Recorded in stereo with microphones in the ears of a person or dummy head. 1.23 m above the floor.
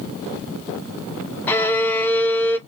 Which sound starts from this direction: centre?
A violin, at 1.5 s.